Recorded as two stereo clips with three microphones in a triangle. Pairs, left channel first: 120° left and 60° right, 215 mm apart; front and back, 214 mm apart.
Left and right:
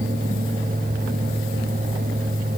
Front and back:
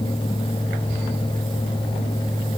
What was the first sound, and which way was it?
Only background noise.